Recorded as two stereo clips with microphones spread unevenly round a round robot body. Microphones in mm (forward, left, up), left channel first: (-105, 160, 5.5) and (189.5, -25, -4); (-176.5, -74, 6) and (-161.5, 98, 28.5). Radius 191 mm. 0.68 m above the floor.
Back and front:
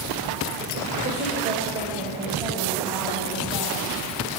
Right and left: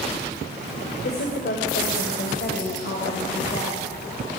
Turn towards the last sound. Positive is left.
turn(degrees=-115)